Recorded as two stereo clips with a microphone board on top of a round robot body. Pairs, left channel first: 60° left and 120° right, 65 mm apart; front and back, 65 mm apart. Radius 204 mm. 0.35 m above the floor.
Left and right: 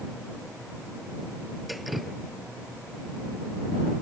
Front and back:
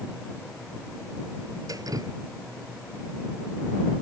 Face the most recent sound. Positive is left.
turn(degrees=150)